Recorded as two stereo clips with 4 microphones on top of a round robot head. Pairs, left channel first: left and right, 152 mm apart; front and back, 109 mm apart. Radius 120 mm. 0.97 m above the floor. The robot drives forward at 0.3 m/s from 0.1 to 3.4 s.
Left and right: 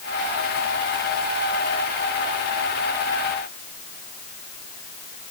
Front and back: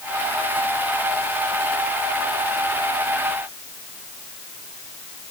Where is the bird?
No bird in this recording.